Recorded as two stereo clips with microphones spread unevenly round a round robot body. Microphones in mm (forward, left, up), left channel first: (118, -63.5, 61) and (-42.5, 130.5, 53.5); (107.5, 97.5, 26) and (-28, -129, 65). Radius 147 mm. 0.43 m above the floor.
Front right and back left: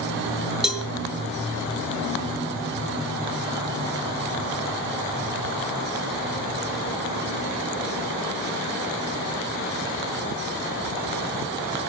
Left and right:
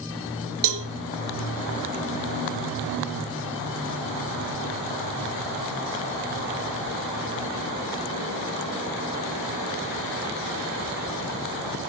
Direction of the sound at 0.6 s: 145° right.